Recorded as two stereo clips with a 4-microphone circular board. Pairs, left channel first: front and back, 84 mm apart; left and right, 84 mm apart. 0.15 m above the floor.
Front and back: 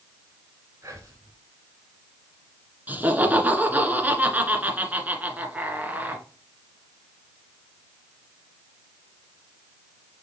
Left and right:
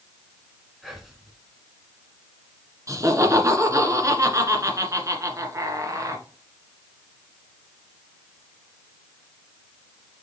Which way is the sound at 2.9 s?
120° right.